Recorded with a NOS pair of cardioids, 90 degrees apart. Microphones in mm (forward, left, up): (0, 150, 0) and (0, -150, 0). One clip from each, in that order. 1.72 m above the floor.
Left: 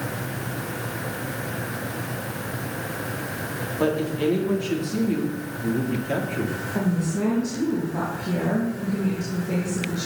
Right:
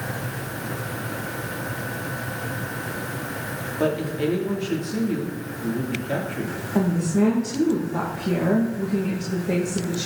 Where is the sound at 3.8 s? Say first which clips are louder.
Even; 5° left, 3.5 m.